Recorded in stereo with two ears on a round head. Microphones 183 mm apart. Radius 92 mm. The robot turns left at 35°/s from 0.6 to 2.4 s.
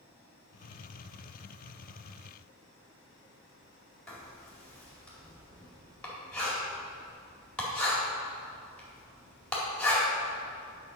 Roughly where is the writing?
Centre.